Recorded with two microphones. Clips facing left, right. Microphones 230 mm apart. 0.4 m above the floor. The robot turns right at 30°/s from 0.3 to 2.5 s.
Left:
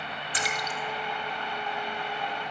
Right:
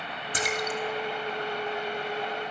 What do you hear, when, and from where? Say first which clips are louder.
0.3 s a splash: right 6 dB; 50° right (ahead or behind), 2 m; by 0.8 s 60° right (ahead or behind), 2 m